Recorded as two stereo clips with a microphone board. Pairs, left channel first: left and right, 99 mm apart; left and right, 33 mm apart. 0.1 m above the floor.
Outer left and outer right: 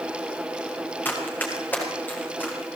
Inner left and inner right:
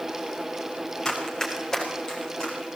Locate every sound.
1.1 s running footsteps: 20° left (ahead or behind), 5.5 m; by 2.6 s 15° left (ahead or behind), 7.5 m